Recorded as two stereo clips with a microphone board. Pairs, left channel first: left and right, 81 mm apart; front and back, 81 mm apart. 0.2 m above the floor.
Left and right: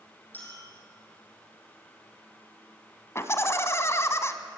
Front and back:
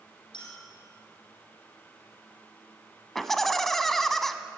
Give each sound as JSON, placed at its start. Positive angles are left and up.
{"t": 0.3, "sound": "a clink", "azimuth_deg": 20, "distance_m": 6.0}
{"t": 3.1, "sound": "laughter", "azimuth_deg": 85, "distance_m": 1.5}